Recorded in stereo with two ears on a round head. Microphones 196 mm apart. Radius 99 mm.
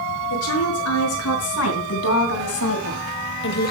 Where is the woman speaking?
80° left, 6 m; by 3.7 s 40° left (ahead or behind), 1.3 m.